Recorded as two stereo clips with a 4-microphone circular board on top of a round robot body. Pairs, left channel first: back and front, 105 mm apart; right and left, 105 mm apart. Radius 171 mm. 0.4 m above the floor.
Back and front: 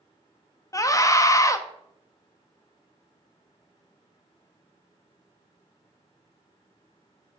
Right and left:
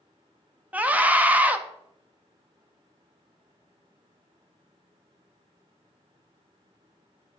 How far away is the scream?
About 0.8 m.